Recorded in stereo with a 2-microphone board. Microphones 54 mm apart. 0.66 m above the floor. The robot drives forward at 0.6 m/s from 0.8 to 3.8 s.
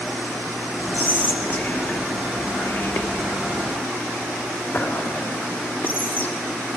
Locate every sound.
0.9 s whispering: 35° left (ahead or behind), 1.3 m